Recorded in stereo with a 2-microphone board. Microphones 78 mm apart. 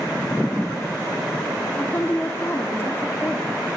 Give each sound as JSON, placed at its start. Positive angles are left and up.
{"t": 1.8, "sound": "a woman speaking", "side_deg": 35, "distance_m": 1.0}